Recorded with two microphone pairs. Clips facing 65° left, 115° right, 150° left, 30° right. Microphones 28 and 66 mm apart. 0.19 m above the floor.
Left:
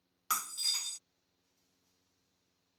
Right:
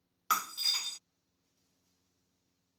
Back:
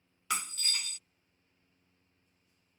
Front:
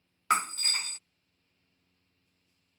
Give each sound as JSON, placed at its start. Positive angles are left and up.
{"t": 0.3, "sound": "breaking glass", "azimuth_deg": -50}